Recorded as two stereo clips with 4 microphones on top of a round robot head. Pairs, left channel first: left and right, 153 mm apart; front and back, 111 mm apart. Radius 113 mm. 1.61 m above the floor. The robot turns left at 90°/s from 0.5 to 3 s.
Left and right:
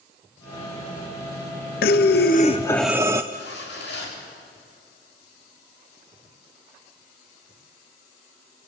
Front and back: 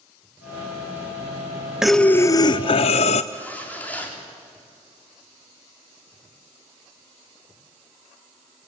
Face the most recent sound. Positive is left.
turn(degrees=70)